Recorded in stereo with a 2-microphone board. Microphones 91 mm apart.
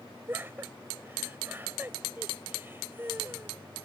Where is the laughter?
25° right (ahead or behind).